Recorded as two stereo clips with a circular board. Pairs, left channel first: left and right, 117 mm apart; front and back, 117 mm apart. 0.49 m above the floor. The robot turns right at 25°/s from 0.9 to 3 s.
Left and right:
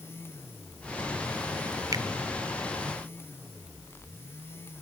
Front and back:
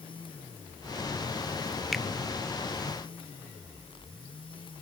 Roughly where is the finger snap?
Right.